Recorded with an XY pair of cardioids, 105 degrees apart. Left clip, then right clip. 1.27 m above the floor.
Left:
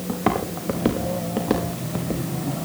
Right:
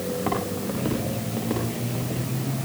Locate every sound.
0.1 s footsteps: 55° left, 5.5 m